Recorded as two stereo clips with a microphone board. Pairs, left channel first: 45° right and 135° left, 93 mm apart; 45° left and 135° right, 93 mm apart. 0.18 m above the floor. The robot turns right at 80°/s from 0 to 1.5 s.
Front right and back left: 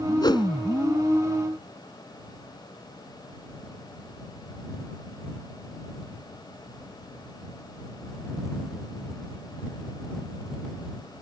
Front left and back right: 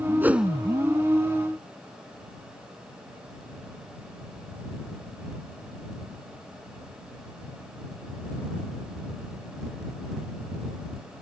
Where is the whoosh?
70° right; by 0.5 s 50° right.